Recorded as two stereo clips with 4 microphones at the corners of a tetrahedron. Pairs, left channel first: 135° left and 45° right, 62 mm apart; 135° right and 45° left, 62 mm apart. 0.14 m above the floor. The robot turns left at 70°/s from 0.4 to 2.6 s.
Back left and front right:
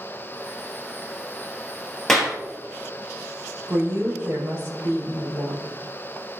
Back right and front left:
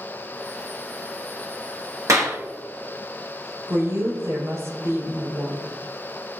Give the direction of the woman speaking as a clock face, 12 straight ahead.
12 o'clock.